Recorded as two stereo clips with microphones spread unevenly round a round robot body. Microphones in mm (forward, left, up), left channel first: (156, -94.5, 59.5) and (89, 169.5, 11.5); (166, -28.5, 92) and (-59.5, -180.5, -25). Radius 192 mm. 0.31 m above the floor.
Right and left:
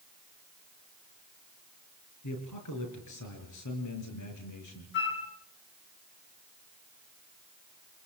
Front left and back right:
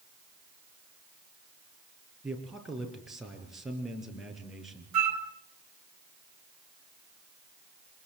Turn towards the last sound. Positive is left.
turn(degrees=-140)